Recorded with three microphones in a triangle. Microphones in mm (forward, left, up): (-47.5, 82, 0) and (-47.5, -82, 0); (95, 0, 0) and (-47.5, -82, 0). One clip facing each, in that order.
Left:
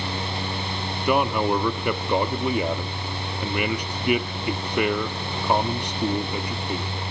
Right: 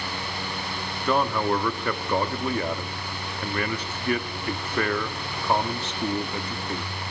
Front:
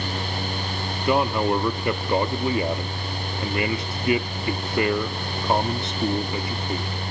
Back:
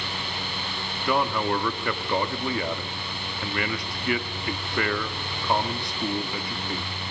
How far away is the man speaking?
About 0.6 m.